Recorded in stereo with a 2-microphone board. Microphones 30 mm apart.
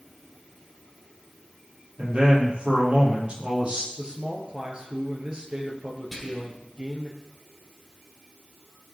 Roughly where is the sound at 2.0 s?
Right.